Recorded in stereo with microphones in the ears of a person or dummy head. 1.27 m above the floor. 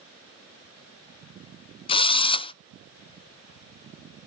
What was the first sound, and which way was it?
A drill, 30° left (ahead or behind).